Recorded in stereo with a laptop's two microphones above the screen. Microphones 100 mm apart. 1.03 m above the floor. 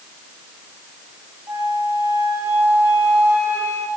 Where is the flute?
25° right (ahead or behind), 7.5 m.